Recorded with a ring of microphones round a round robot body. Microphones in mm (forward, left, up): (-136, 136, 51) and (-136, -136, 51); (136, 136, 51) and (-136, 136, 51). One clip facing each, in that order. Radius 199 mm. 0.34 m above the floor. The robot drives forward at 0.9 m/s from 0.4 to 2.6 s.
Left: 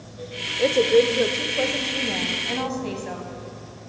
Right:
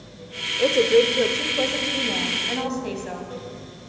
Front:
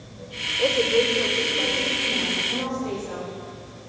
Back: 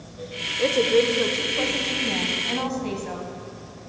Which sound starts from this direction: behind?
A woman speaking, at 0.6 s.